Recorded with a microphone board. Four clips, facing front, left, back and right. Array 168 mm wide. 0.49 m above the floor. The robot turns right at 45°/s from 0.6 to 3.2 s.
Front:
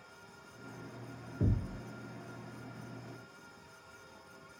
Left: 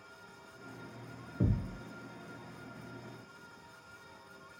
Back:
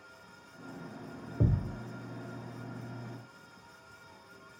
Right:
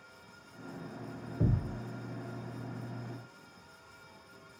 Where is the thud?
170° left, 0.9 m; by 1.8 s 175° right, 0.9 m.